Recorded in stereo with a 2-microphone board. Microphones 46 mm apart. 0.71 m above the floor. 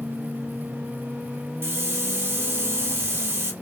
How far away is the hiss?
About 0.6 m.